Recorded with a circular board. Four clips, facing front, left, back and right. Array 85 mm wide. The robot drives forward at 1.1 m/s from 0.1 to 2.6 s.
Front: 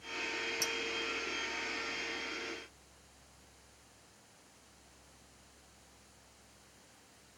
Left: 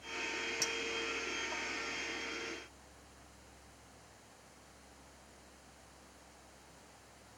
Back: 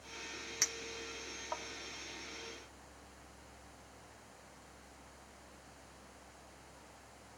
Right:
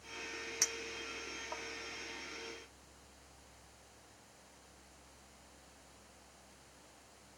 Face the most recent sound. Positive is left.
turn(degrees=-175)